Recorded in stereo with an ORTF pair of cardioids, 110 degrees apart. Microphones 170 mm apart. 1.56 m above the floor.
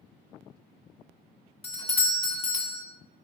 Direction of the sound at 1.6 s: 35° left.